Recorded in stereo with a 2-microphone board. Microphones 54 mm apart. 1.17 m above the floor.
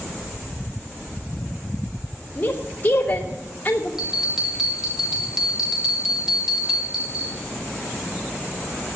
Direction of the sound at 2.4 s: 35° left (ahead or behind).